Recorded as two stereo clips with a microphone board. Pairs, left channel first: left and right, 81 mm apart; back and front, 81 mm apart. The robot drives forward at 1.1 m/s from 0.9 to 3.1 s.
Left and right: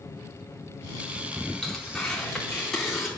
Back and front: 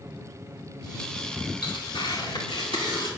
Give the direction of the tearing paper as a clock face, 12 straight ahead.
6 o'clock.